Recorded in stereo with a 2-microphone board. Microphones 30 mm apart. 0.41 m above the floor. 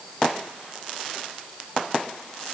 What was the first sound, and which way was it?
Only background noise.